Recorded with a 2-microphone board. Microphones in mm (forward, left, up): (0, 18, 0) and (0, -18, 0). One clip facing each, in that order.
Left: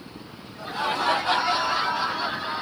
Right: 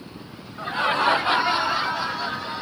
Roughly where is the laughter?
Right.